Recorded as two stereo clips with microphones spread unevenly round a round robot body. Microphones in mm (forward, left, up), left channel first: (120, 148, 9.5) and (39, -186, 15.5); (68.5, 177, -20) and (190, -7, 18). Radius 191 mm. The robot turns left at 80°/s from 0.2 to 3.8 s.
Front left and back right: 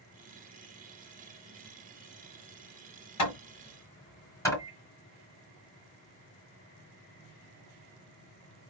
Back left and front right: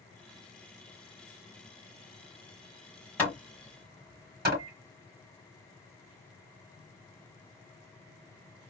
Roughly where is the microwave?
Ahead.